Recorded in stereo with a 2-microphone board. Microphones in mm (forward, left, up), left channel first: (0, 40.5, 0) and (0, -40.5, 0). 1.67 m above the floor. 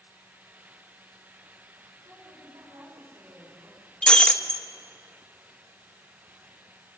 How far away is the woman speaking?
About 7.5 m.